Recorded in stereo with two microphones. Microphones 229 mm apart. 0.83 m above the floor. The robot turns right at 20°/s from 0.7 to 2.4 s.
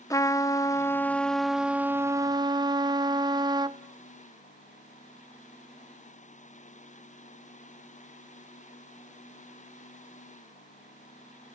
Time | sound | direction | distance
0.1 | a trumpet | 165° left | 0.5 m